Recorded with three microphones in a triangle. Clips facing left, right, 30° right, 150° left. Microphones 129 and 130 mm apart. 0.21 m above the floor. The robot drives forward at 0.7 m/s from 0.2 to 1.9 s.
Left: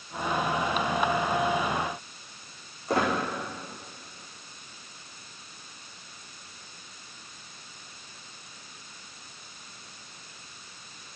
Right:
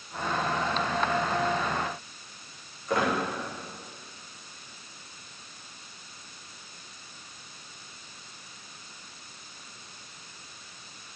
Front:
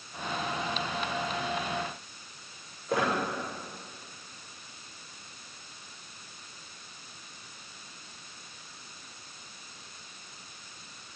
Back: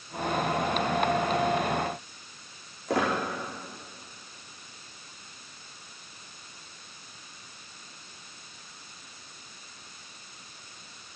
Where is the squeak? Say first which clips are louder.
Left 1 dB, back 2 dB; 150° left, 6 m.